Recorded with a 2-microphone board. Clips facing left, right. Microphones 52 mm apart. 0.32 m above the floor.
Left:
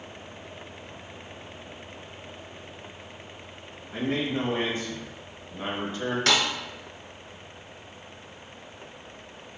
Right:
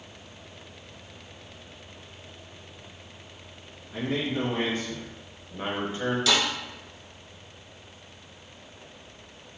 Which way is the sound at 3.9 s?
35° left (ahead or behind).